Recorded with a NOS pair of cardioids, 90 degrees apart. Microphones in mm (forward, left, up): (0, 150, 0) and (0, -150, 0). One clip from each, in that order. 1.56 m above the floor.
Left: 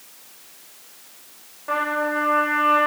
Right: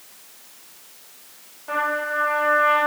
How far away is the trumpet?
About 4 m.